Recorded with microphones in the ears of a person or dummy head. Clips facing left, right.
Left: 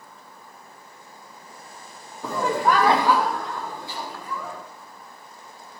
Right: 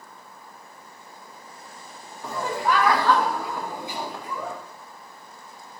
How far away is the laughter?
About 1.2 m.